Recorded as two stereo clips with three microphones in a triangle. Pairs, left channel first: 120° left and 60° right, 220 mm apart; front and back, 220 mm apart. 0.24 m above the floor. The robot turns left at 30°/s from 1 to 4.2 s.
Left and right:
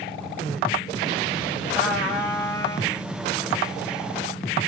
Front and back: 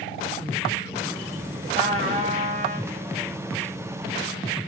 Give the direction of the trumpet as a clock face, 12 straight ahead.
5 o'clock.